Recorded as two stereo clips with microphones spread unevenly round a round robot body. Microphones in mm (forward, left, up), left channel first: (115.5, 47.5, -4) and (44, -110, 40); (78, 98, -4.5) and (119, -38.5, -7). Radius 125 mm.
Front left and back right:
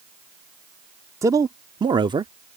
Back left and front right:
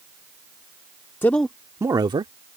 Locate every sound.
1.2 s a man speaking: 160° left; by 2.3 s 45° right